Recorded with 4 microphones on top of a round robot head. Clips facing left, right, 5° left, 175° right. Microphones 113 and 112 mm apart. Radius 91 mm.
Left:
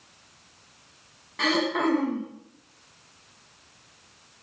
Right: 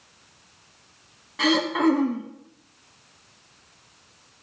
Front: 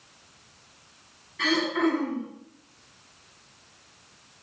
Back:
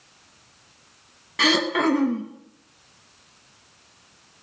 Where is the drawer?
I don't hear a drawer.